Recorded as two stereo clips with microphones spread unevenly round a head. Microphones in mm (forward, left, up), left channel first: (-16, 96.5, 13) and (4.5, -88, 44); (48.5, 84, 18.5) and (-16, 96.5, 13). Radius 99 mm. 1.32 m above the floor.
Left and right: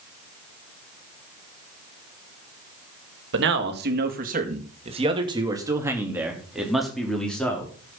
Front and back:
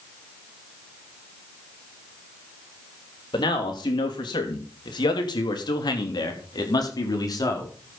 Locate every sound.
3.3 s a man speaking: 55° right, 2.5 m; by 8.0 s 15° left, 4 m